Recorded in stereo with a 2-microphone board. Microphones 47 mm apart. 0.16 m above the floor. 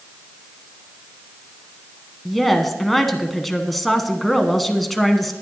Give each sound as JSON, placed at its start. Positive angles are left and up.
{"t": 2.2, "sound": "a woman speaking", "side_deg": 5, "distance_m": 1.1}